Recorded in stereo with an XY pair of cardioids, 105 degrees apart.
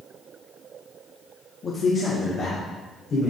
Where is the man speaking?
40° left, 1.6 m; by 3.3 s 60° left, 4 m.